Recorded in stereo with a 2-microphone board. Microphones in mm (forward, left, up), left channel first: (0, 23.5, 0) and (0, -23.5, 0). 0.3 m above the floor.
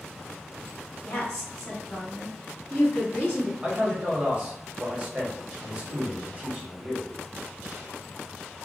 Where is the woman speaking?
25° left (ahead or behind), 1.2 m.